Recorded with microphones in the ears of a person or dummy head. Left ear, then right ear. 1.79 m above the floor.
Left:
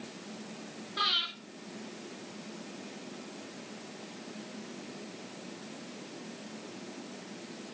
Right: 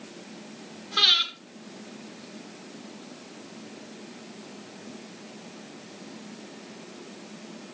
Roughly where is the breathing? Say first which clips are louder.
Right 9 dB; right.